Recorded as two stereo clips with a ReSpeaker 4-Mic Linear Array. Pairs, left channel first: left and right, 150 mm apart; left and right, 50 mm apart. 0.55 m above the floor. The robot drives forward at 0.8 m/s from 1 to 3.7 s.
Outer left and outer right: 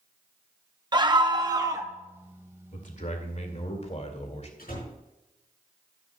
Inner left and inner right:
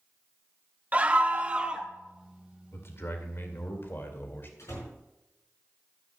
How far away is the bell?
I don't hear a bell.